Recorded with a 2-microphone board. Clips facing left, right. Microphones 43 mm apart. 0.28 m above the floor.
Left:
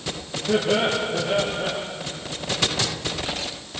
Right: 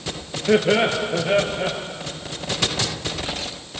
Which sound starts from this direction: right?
Laughter, at 0.5 s.